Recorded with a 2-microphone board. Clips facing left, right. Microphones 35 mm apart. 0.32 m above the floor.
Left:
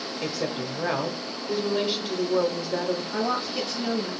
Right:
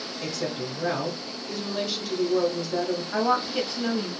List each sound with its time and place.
0.2 s a woman speaking: 20° left (ahead or behind), 0.9 m
3.1 s a woman speaking: 30° right (ahead or behind), 1.3 m